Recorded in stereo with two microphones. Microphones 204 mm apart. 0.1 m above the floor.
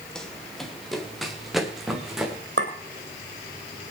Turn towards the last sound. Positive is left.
turn(degrees=-65)  # may be behind; listen again after turning